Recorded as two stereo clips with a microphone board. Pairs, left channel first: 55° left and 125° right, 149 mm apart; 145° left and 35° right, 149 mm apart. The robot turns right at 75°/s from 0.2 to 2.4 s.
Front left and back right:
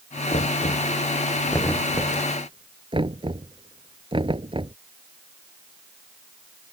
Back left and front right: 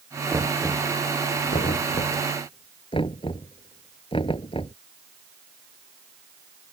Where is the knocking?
35° left; by 4.8 s 170° right.